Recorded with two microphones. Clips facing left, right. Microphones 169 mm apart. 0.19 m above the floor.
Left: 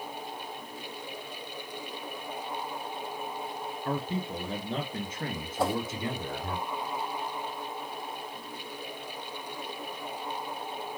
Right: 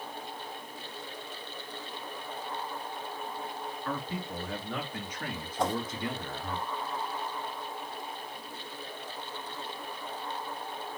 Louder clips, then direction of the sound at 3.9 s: Left 5 dB; 30° left (ahead or behind).